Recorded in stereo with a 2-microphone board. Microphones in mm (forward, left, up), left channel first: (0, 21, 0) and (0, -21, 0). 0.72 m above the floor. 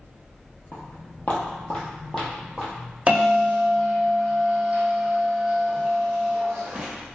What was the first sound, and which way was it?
Footsteps, 45° left (ahead or behind).